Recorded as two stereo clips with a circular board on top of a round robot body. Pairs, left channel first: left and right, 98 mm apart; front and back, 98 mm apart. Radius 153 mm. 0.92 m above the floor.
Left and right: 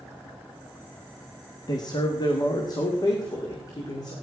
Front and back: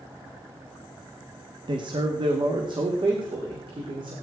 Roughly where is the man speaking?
Behind left.